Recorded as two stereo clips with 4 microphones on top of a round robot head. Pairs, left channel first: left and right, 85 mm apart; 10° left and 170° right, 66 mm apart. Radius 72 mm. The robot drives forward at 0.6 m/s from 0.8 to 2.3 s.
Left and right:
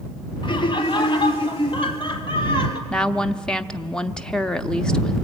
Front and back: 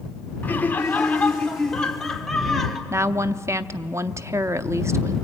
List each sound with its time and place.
0.4 s laughter: 75° left, 2.5 m; by 2.8 s 100° left, 2.5 m
2.9 s a woman speaking: 170° left, 0.8 m